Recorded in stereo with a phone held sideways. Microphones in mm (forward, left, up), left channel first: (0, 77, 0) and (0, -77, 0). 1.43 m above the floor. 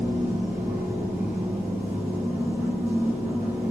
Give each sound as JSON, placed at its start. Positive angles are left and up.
{"t": 0.0, "sound": "a machine running", "side_deg": -15, "distance_m": 1.7}